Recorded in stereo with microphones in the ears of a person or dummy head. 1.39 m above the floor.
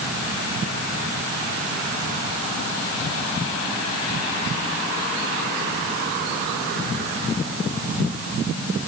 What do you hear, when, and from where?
Only background noise.